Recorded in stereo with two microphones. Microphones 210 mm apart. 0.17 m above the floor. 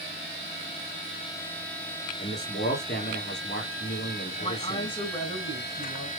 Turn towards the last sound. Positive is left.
turn(degrees=25)  # may be behind; listen again after turning